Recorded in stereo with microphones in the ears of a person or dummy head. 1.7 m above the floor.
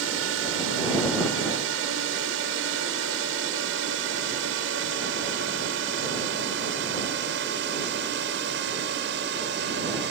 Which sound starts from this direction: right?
A drone, at 0.0 s.